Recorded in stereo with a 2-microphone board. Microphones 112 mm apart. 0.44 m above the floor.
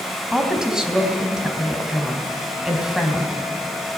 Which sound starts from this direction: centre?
A woman speaking, at 0.3 s.